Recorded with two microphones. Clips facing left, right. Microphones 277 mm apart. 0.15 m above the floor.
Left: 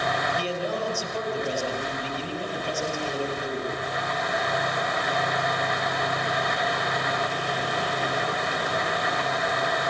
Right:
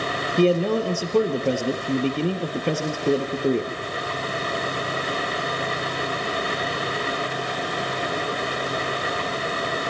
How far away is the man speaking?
About 3.5 m.